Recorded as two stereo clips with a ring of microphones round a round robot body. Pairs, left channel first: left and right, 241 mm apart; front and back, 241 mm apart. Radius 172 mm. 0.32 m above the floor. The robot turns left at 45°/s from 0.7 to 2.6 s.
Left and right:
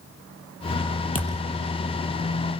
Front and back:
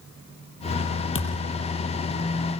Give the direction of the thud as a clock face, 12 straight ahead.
11 o'clock.